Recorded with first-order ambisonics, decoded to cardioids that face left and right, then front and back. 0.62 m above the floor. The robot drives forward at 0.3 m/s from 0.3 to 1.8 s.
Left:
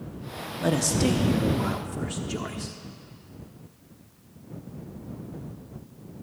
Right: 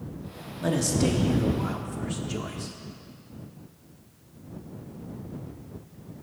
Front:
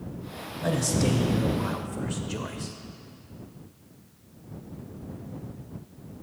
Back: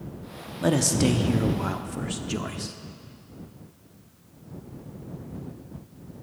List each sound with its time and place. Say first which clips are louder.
0.6 s a man speaking: left 1 dB, back 4 dB; 165° left, 0.8 m; by 2.8 s 170° left, 1.1 m